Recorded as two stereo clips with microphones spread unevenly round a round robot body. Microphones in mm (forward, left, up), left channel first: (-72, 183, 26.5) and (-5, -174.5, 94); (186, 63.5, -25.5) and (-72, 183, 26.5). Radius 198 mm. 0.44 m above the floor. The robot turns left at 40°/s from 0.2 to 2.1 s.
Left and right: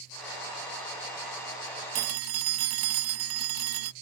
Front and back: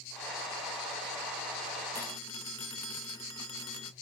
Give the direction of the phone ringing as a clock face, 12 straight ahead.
3 o'clock.